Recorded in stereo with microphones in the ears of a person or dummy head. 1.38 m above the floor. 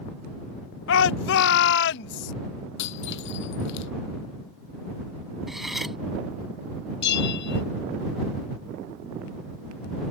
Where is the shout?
75° left (ahead or behind); by 2.3 s 65° left (ahead or behind).